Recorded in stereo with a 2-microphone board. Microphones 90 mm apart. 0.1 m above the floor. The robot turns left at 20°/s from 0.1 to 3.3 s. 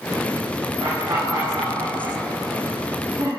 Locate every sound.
0.8 s laughter: 50° right (ahead or behind), 4 m; by 3.3 s 5° right (ahead or behind), 4 m